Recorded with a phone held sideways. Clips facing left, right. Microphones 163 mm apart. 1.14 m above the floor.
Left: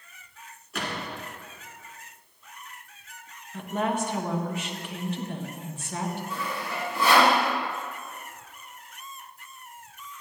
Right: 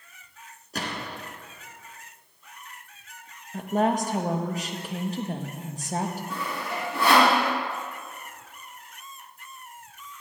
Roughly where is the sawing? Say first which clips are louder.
Right 1 dB; right.